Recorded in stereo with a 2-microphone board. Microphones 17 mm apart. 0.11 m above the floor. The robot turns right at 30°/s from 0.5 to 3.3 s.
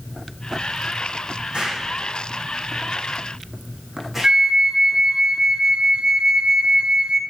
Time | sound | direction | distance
1.5 | an explosion | 70° right (ahead or behind) | 6 m
4.2 | a flute | 40° right (ahead or behind) | 0.9 m